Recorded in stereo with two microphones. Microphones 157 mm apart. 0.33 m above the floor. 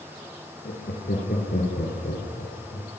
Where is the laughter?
75° left (ahead or behind), 7 m; by 2.9 s 65° left (ahead or behind), 5.5 m.